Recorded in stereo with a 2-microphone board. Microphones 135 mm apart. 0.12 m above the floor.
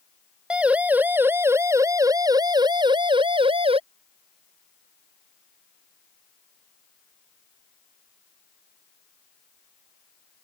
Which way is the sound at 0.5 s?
5° right (ahead or behind).